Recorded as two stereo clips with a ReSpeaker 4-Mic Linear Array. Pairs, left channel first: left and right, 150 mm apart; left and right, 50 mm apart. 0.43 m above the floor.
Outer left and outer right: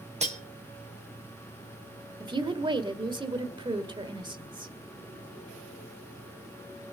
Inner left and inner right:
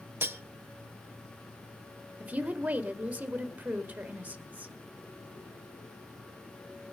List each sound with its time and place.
0.2 s cutlery clinking: 50° right (ahead or behind), 1.0 m
2.2 s a woman speaking: 35° right (ahead or behind), 1.6 m